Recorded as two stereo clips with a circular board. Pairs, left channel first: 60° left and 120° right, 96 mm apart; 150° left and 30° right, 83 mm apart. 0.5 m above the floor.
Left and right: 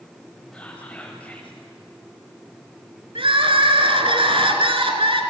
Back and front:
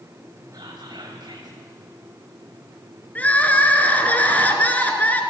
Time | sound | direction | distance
0.5 | whispering | 15° right | 2 m
3.1 | crying | 140° right | 2.5 m